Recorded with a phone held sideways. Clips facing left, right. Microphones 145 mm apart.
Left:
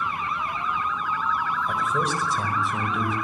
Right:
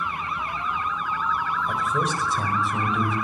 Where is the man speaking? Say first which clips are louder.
Even; centre (ahead or behind), 5 m.